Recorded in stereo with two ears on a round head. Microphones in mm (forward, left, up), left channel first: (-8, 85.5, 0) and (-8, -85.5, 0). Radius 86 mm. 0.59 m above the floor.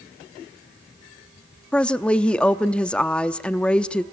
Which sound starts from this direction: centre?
A woman speaking, at 1.7 s.